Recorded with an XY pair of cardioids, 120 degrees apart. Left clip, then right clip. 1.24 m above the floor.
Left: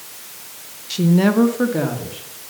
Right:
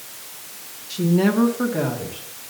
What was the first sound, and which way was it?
A woman speaking, 35° left.